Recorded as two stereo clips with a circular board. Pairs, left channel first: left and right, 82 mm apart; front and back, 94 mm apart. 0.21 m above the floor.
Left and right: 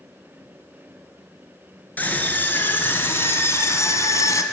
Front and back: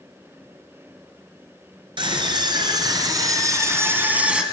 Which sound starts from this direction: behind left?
A scream, at 2.0 s.